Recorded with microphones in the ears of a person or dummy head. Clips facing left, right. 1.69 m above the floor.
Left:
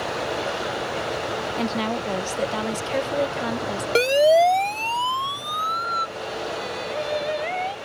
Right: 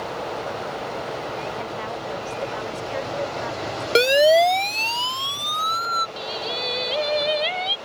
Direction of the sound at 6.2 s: 45° right (ahead or behind).